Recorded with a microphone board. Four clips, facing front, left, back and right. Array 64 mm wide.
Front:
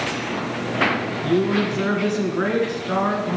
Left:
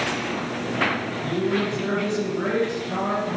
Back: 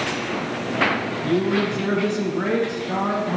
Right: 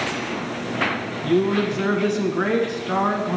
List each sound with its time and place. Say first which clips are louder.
1.2 s a man speaking: right 5 dB, front 1 dB; 50° right, 2 m